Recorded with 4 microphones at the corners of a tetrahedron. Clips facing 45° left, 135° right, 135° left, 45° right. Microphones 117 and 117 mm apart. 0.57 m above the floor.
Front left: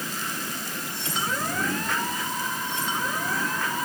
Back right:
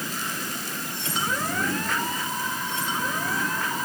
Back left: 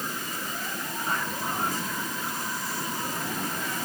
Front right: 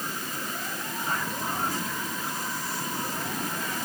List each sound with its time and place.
Only background noise.